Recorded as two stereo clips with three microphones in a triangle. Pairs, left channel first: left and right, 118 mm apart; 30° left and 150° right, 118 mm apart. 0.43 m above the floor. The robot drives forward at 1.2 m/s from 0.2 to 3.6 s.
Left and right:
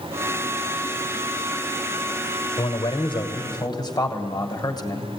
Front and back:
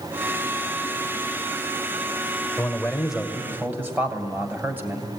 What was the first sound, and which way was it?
A man speaking, 100° left.